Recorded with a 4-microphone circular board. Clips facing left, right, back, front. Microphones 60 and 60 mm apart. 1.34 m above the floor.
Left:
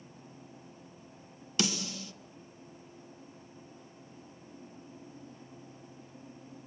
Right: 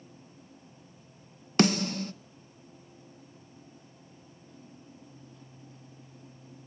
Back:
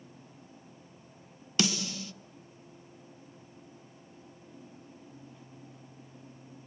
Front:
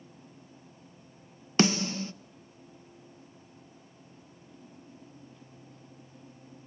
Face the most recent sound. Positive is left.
turn(degrees=-50)